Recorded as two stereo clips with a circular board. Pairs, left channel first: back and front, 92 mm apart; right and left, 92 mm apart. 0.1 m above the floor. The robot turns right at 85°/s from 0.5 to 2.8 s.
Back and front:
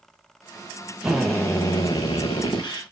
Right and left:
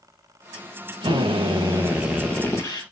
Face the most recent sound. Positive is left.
turn(degrees=-130)